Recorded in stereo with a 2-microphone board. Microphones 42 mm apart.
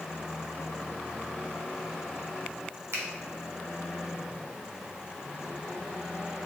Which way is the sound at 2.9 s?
85° right.